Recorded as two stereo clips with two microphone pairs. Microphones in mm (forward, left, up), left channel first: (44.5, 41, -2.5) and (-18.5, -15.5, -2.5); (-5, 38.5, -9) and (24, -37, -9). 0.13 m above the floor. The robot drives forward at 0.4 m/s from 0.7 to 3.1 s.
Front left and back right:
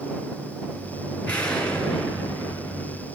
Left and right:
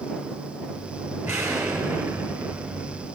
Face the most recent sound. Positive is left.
turn(degrees=-55)